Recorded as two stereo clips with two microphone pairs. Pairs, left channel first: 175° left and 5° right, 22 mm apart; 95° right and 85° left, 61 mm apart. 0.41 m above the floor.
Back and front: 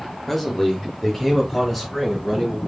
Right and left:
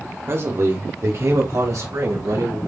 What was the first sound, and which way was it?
A man speaking, 95° left.